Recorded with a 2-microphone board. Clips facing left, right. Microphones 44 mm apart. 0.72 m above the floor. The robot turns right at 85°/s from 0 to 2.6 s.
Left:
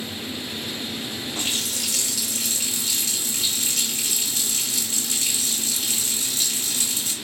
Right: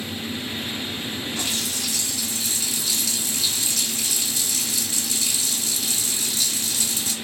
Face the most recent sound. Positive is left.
turn(degrees=135)